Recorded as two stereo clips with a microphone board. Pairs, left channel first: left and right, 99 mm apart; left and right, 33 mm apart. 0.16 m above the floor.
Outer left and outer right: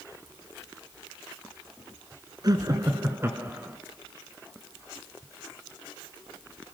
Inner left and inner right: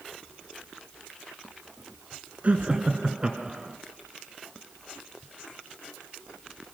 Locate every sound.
2.4 s laughter: 40° right (ahead or behind), 1.7 m; by 3.8 s 15° right (ahead or behind), 1.6 m